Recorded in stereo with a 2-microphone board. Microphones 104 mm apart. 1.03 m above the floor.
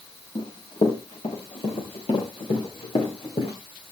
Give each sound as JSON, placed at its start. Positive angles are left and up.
{"t": 0.3, "sound": "running footsteps", "side_deg": 85, "distance_m": 10.0}